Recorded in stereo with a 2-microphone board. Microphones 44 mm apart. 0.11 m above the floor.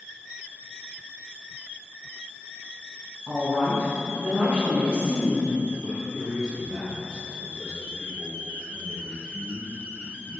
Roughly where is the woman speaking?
Right.